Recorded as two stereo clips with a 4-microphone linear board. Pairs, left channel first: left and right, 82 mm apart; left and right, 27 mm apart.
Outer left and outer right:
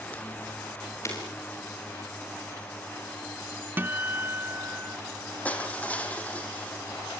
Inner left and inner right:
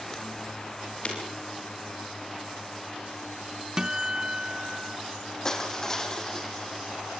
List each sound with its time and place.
1.1 s breaking glass: 35° left (ahead or behind), 9 m
3.8 s a guitar: 25° right (ahead or behind), 0.6 m
5.5 s crushing: 20° left (ahead or behind), 2.5 m